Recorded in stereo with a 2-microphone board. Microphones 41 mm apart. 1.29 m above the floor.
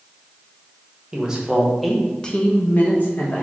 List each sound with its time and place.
1.1 s a man speaking: 20° right (ahead or behind), 0.8 m; by 3.4 s 55° left (ahead or behind), 0.9 m